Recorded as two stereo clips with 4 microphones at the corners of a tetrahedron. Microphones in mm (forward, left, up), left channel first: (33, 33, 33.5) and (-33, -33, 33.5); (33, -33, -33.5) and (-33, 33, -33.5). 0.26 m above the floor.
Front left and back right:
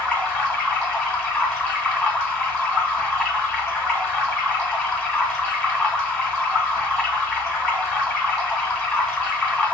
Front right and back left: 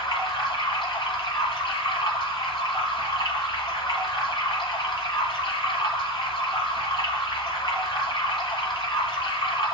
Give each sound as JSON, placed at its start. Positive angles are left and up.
{"t": 0.0, "sound": "running water", "azimuth_deg": -35, "distance_m": 2.0}